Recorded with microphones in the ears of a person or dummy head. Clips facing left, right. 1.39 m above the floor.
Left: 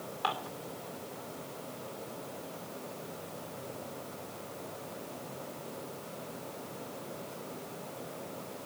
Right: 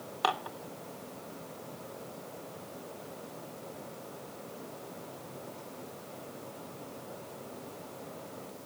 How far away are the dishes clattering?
About 1.5 m.